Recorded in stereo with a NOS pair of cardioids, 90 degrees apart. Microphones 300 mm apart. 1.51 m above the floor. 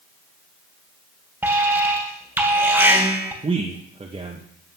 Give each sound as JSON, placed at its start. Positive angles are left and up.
{"t": 1.4, "sound": "an alarm", "azimuth_deg": -5, "distance_m": 2.5}
{"t": 3.4, "sound": "a man speaking", "azimuth_deg": -20, "distance_m": 1.3}